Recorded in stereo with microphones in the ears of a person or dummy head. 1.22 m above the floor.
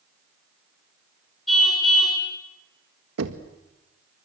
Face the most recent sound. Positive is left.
turn(degrees=-75)  # may be behind; listen again after turning